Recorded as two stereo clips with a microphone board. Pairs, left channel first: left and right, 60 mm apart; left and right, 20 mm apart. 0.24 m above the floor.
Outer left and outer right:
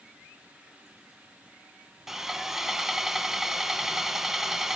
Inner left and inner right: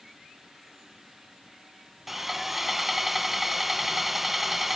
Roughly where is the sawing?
Centre.